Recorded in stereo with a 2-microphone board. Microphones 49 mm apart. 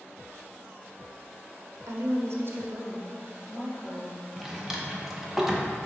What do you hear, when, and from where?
1.9 s a woman speaking: 85° right, 0.7 m; by 4.2 s 15° left (ahead or behind), 1.6 m
4.4 s a drawer: 5° right (ahead or behind), 0.6 m